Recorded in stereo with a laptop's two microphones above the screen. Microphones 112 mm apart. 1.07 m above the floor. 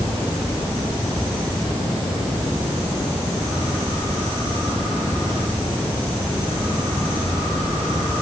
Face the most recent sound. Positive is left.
No sound to turn to.